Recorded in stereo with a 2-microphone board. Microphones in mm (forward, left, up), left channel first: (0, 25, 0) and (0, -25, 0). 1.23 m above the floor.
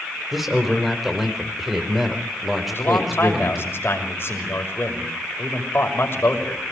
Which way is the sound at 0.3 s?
Centre (ahead or behind).